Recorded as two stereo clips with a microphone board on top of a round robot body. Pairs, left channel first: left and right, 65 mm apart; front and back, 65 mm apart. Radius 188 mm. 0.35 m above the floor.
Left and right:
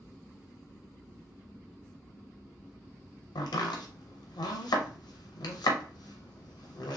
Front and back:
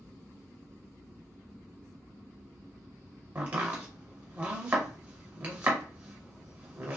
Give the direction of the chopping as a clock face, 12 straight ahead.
8 o'clock.